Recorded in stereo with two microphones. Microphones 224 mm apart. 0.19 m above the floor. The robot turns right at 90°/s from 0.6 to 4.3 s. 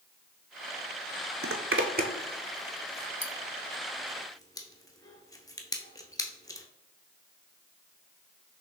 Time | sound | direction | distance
1.4 | a zipper | 80° right | 0.6 m